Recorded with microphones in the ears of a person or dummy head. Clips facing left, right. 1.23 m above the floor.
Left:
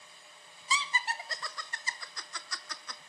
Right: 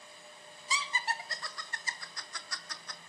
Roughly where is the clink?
No clink in this recording.